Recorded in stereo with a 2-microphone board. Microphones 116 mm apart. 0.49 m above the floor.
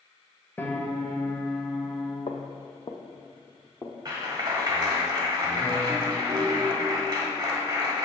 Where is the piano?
15° left (ahead or behind), 1.1 m.